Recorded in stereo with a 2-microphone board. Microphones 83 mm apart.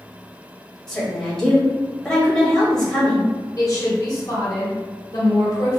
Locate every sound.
0.9 s a woman speaking: 5° left (ahead or behind), 1.8 m
3.6 s a woman speaking: 50° left (ahead or behind), 1.7 m